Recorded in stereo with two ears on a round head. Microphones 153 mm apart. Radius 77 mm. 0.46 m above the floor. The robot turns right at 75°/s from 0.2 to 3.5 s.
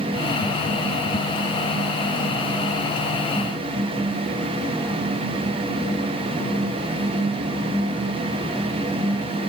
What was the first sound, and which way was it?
Only background noise.